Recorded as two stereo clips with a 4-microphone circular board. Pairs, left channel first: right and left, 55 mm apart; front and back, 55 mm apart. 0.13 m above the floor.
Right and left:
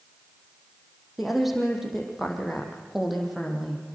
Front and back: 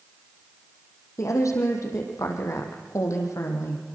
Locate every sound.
1.2 s a woman speaking: straight ahead, 5 m